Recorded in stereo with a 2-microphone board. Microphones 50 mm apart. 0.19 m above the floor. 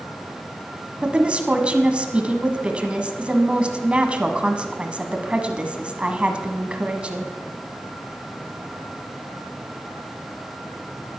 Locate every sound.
1.0 s a woman speaking: 25° right (ahead or behind), 1.2 m